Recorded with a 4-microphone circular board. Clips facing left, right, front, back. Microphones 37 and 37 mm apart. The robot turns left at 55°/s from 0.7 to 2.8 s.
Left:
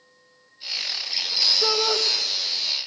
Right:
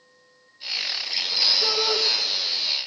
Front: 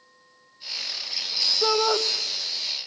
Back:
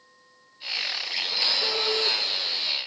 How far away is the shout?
About 2 m.